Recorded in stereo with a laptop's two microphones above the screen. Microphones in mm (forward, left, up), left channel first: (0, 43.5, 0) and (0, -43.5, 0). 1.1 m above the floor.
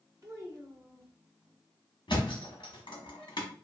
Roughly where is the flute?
I don't hear a flute.